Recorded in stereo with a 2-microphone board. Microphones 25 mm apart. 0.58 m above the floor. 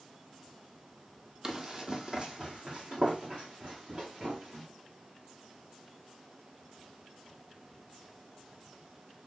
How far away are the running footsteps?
About 0.9 m.